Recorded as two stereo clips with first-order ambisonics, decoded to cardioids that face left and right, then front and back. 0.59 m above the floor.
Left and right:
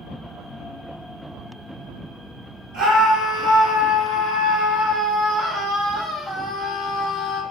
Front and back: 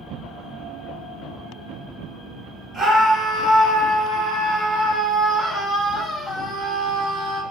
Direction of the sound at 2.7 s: 110° right.